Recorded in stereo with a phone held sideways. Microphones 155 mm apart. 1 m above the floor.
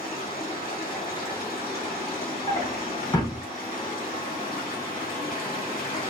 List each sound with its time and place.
0.0 s running water: 65° left (ahead or behind), 1.4 m
2.5 s a drawer: 25° left (ahead or behind), 0.8 m